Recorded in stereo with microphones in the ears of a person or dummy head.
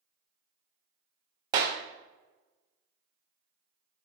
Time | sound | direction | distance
1.5 | a clap | 15° right (ahead or behind) | 0.6 m